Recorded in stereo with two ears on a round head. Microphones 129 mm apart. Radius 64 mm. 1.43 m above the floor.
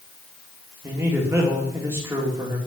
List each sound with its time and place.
0.8 s a man speaking: 20° right (ahead or behind), 2.5 m